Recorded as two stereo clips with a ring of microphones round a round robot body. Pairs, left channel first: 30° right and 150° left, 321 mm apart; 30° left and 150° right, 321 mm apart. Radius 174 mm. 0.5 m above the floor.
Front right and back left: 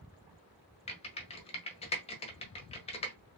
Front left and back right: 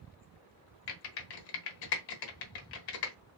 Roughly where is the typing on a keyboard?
Ahead left.